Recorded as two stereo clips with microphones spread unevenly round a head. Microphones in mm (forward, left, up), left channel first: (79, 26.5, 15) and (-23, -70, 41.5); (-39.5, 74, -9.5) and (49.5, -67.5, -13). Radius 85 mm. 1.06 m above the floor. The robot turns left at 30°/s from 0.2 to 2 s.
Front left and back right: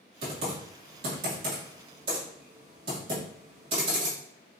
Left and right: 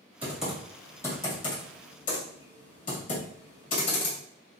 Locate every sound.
0.2 s typing on a keyboard: 140° right, 2 m; by 4.2 s 170° left, 2 m